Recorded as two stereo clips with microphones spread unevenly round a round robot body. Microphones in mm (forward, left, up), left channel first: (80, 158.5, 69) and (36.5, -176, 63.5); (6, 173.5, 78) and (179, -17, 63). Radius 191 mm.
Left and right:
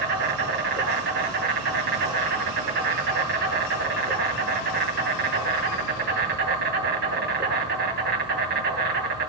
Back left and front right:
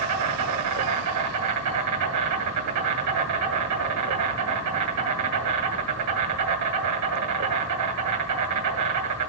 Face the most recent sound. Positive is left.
turn(degrees=-35)